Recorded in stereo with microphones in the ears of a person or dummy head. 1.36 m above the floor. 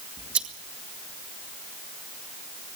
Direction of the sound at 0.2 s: 5° right (ahead or behind).